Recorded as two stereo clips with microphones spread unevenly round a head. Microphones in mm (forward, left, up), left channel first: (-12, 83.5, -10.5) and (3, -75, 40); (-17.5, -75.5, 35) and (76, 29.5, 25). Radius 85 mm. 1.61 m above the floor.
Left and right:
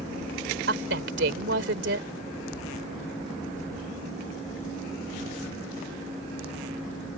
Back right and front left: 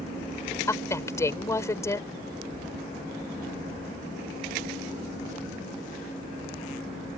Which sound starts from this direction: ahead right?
A woman speaking, at 0.7 s.